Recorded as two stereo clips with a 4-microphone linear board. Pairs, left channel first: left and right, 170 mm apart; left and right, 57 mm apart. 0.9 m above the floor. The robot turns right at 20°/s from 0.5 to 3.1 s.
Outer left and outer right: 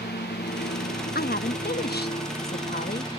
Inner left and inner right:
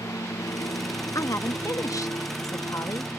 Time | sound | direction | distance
0.0 | a lawn mower | 75° left (ahead or behind) | ?
1.1 | a woman speaking | 75° left | ?